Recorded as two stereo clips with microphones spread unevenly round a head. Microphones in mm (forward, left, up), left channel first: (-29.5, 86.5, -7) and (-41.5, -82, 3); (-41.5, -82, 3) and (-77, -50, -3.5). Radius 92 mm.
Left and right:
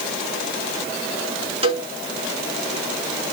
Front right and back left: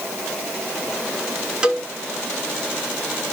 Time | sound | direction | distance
1.6 | a cowbell | 150° right | 3 m